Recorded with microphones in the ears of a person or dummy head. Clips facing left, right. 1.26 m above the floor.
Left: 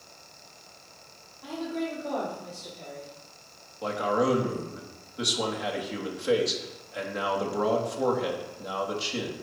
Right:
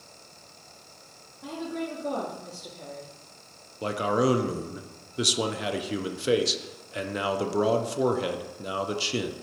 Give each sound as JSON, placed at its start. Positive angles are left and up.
{"t": 1.4, "sound": "a woman speaking", "side_deg": -40, "distance_m": 1.7}
{"t": 3.8, "sound": "a man speaking", "side_deg": -35, "distance_m": 0.6}